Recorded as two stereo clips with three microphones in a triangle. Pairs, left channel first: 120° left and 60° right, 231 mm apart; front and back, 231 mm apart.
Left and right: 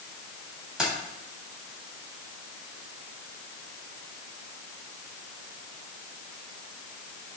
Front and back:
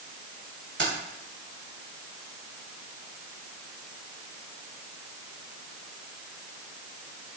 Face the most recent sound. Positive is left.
turn(degrees=-145)